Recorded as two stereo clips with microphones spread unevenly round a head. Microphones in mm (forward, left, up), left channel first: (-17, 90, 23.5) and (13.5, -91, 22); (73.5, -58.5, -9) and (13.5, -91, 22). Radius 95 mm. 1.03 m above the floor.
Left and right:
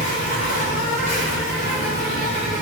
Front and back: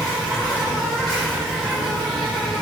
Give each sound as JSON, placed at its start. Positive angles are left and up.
{"t": 0.0, "sound": "an insect", "azimuth_deg": 155, "distance_m": 1.3}